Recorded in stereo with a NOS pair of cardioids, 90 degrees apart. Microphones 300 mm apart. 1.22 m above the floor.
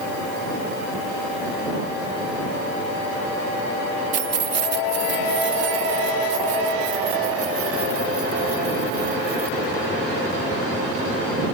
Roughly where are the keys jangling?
Ahead right.